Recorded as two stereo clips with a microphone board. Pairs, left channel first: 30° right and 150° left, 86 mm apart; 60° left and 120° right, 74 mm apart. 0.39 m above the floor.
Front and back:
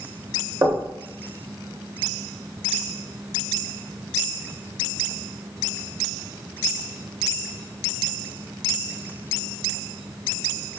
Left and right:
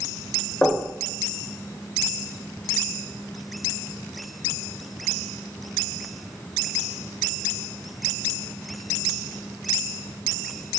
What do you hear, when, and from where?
0.6 s knocking: 120° left, 0.8 m